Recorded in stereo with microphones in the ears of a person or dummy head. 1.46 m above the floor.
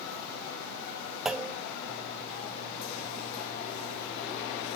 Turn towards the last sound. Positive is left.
turn(degrees=5)  # may be behind; listen again after turning